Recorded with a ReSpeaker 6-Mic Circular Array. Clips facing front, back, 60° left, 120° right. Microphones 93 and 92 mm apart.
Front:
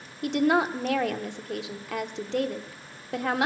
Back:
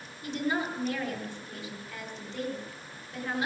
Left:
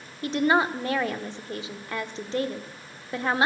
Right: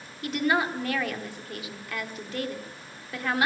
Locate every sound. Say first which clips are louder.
0.2 s a woman speaking: front 8 dB, left 3 dB; straight ahead, 1.2 m